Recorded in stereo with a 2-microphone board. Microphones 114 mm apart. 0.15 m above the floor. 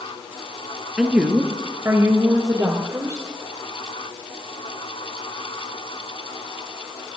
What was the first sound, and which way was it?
A woman speaking, 10° right (ahead or behind).